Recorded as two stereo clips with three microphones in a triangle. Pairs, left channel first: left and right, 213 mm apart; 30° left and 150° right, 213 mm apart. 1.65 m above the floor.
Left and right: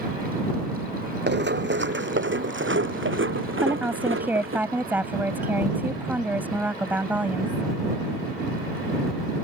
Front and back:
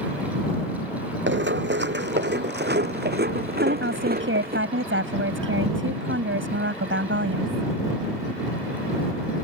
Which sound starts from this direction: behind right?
Running footsteps, at 1.3 s.